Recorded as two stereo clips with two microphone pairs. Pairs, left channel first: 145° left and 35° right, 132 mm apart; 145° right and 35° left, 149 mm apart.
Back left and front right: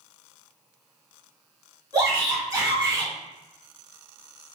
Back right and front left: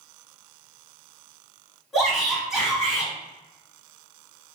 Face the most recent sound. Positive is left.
turn(degrees=-55)